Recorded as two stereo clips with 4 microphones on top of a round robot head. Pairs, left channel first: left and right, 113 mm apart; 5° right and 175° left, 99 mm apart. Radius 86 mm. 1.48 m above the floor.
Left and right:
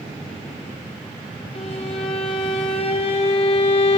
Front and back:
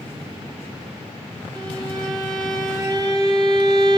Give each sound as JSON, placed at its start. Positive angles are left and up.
{"t": 1.6, "sound": "a violin", "azimuth_deg": 125, "distance_m": 1.4}